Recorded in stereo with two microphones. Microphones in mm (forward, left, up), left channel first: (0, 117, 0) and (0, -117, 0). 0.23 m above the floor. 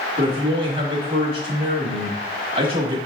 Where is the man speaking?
25° right (ahead or behind), 1.1 m.